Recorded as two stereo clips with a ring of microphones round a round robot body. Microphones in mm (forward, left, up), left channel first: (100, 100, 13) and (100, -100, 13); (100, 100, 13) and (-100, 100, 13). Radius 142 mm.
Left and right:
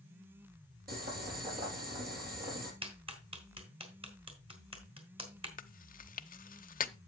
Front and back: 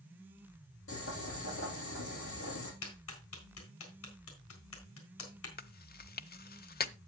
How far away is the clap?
About 4 m.